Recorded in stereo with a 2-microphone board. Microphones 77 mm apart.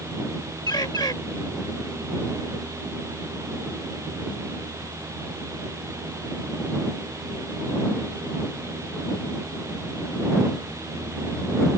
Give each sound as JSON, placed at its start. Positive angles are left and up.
{"t": 0.7, "sound": "a bird", "side_deg": 65}